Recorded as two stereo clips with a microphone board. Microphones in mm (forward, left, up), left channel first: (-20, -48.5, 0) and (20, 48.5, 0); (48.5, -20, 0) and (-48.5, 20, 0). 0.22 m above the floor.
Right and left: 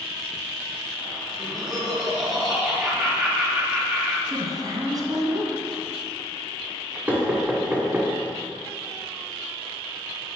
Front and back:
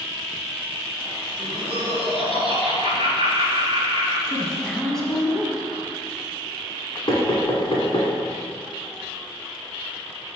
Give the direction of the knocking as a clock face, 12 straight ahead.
12 o'clock.